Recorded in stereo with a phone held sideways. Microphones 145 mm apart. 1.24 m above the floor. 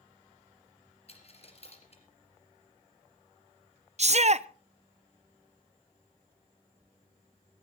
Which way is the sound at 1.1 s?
45° left (ahead or behind).